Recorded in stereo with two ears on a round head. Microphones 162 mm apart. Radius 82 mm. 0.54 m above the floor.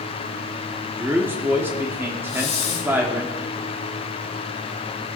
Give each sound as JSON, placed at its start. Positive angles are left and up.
{"t": 1.0, "sound": "a man speaking", "side_deg": -10, "distance_m": 1.3}
{"t": 2.3, "sound": "a hiss", "side_deg": 35, "distance_m": 1.9}